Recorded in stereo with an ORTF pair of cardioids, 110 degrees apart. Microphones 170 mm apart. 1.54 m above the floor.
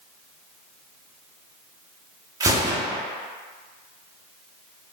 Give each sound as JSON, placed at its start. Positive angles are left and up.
{"t": 2.4, "sound": "a gunshot", "azimuth_deg": -20, "distance_m": 0.5}